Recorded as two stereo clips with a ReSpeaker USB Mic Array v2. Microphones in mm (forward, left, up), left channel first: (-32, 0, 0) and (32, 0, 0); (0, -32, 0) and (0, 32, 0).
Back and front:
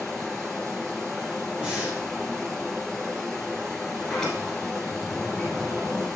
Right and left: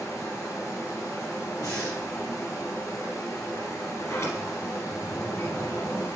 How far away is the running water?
About 2.5 m.